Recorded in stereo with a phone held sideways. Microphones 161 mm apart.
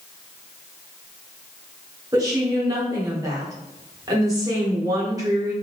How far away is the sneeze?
No sneeze in this recording.